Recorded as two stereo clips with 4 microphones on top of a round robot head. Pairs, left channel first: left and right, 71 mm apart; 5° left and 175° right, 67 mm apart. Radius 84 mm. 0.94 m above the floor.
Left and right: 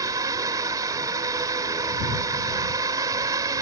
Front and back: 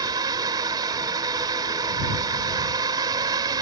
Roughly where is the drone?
Behind right.